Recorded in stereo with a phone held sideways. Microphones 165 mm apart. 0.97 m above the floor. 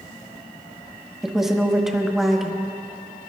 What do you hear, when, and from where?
1.2 s a woman speaking: centre (ahead or behind), 1.3 m